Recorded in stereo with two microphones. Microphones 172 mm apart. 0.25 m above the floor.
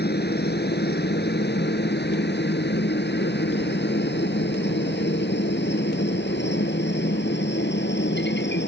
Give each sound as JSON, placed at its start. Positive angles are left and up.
{"t": 0.0, "sound": "a helicopter", "side_deg": 65}